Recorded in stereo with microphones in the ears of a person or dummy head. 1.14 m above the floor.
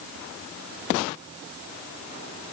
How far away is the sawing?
I don't hear sawing.